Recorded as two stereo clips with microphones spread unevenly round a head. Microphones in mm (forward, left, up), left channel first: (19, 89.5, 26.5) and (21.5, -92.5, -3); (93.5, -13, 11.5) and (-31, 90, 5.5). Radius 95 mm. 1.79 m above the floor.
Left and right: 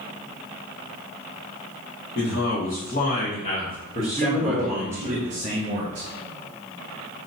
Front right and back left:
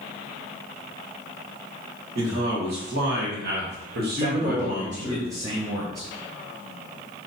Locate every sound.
2.1 s a man speaking: 120° left, 1.8 m; by 5.2 s 160° right, 1.0 m
4.2 s a man speaking: 145° right, 0.8 m